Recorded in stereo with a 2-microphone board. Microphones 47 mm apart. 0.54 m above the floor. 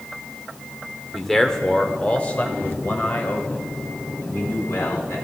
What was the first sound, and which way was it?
A man speaking, centre (ahead or behind).